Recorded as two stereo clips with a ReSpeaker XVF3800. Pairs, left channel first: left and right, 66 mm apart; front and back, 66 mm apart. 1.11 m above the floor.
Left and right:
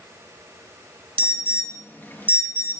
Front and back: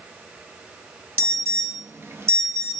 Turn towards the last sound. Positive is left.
turn(degrees=145)